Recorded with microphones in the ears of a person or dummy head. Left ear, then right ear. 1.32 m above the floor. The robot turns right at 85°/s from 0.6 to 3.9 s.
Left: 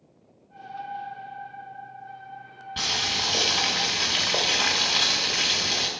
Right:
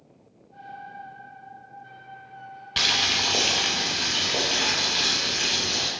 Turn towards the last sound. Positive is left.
turn(degrees=55)